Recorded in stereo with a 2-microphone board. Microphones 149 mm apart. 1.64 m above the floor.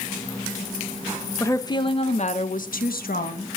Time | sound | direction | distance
1.4 | a woman speaking | 20° left (ahead or behind) | 1.7 m